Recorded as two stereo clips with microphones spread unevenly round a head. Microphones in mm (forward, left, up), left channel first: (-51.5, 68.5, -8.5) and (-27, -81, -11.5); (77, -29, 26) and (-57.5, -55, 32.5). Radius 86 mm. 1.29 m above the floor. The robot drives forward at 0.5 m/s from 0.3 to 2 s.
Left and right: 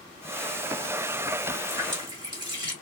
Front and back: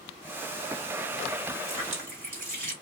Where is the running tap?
140° right, 2.5 m; by 2.7 s 145° right, 2.5 m.